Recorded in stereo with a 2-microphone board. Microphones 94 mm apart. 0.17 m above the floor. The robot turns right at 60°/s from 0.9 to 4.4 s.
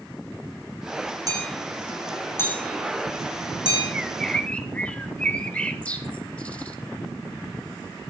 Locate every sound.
1.3 s hammering: 40° right (ahead or behind), 9 m; by 3.8 s 65° left (ahead or behind), 9 m
3.9 s a bird: 10° right (ahead or behind), 2.5 m; by 6.8 s 15° left (ahead or behind), 2.5 m